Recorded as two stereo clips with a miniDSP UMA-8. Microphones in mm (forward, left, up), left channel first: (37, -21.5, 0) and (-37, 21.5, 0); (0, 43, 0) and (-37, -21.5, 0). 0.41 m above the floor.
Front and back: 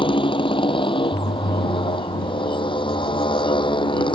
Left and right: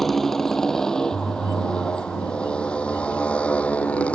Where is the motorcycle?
30° right; by 4.2 s 15° right.